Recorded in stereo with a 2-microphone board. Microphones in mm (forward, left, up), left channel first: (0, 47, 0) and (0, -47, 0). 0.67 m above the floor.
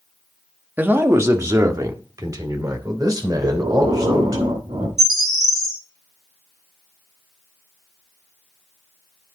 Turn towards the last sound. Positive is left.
turn(degrees=-5)  # may be behind; listen again after turning